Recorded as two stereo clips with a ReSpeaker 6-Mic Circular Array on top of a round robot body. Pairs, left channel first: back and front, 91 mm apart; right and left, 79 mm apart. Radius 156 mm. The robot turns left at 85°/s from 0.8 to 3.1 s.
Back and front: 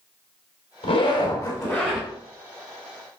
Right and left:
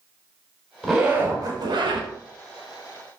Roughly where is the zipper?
Behind.